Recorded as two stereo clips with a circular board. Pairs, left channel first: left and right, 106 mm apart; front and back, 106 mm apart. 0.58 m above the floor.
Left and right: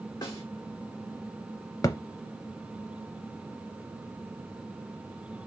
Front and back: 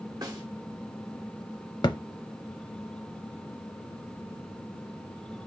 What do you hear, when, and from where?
0.2 s a snare drum: 135° left, 1.6 m
1.8 s a thud: 40° left, 0.6 m